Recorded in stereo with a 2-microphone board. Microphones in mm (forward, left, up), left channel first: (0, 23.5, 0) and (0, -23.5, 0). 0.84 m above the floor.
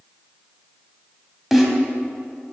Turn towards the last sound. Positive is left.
turn(degrees=0)  # may be behind; listen again after turning